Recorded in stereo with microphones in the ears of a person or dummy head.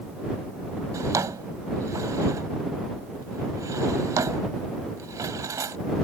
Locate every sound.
0.9 s a drawer: 15° right (ahead or behind)